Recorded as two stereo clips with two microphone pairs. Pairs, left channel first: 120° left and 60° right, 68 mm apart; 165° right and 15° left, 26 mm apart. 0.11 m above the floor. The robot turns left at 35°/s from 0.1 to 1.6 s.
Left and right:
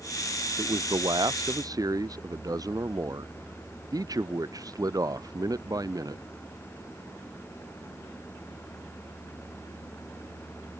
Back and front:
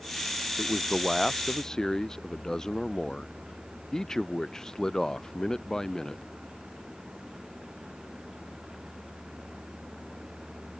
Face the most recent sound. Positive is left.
turn(degrees=-95)